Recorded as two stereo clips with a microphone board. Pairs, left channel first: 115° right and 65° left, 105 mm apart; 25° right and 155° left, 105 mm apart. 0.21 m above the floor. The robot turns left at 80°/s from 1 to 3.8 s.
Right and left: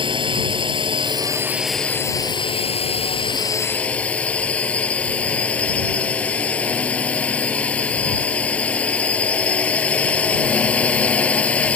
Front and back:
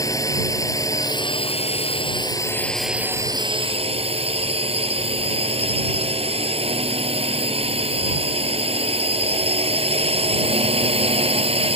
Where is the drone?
35° left; by 11.8 s 170° left.